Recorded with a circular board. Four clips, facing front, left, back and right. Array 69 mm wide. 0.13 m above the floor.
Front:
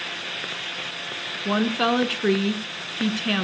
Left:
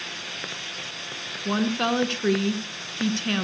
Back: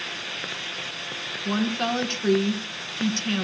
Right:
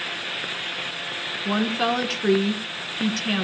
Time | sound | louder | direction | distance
1.4 | a woman speaking | right 1 dB, front 4 dB | 5° right | 1.5 m